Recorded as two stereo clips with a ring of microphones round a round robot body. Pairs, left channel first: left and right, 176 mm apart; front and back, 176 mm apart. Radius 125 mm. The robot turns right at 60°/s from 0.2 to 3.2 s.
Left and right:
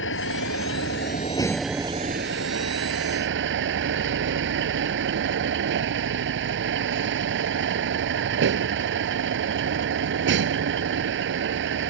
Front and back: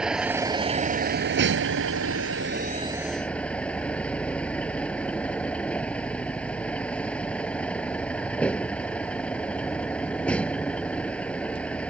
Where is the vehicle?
95° left; by 11.9 s 85° right.